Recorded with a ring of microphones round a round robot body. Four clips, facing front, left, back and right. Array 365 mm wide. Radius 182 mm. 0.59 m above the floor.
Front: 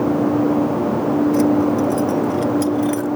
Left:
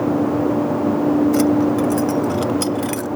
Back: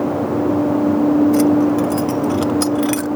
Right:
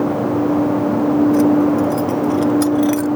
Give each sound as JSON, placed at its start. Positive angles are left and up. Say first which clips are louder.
{"t": 1.3, "sound": "keys jangling", "louder": "right 3 dB, back 2 dB", "azimuth_deg": 120}